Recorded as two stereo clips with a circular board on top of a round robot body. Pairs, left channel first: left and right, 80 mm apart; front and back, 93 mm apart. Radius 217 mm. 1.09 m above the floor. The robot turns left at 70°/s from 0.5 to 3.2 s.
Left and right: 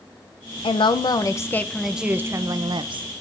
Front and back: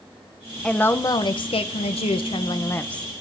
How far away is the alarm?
No alarm in this recording.